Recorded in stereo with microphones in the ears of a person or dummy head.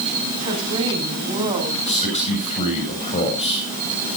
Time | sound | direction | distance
0.4 | a woman speaking | 30° right (ahead or behind) | 8 m
1.9 | a man speaking | 35° left (ahead or behind) | 8 m